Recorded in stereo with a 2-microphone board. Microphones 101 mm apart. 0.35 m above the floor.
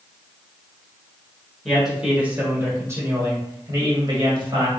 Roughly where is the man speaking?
Centre.